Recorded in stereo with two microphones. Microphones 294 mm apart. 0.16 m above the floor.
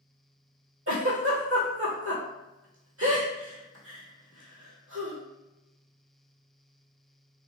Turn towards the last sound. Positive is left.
turn(degrees=-50)  # may be behind; listen again after turning